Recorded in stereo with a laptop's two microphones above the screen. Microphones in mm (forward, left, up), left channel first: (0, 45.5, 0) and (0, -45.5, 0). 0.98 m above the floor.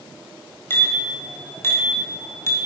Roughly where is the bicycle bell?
Left.